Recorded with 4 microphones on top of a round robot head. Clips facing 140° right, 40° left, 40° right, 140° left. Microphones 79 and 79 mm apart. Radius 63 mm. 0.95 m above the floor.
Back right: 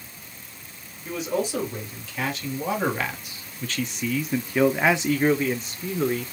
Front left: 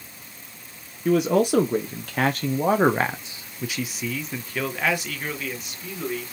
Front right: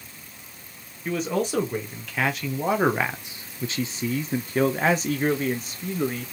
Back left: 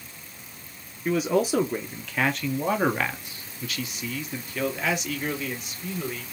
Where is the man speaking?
60° left, 1.6 m; by 6.3 s 90° right, 1.7 m.